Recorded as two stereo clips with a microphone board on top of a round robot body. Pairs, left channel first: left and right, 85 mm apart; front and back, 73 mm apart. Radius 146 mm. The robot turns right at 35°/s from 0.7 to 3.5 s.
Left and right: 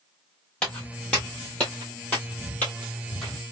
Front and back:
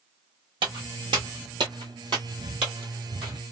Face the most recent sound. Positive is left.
turn(degrees=175)